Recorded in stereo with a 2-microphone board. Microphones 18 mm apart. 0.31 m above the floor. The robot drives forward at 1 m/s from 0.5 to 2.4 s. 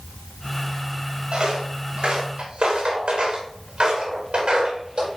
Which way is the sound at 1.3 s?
60° right (ahead or behind).